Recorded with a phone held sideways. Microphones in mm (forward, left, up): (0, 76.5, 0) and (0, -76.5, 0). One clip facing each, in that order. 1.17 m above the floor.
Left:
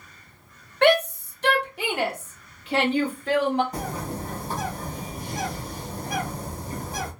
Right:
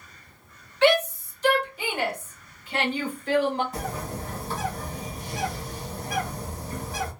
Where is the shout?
55° left (ahead or behind), 1.0 m; by 3.6 s 75° left (ahead or behind), 2.5 m.